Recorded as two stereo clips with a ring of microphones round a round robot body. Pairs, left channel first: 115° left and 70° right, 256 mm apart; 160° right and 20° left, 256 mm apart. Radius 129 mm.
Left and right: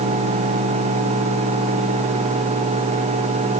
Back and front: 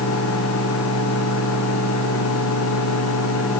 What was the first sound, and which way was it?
Only background noise.